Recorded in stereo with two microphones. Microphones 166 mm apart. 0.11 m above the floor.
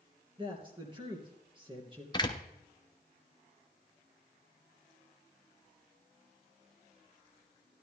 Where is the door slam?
25° left (ahead or behind), 1.0 m.